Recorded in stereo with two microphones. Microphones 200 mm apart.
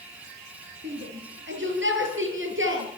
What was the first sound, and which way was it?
A shout, 65° right (ahead or behind).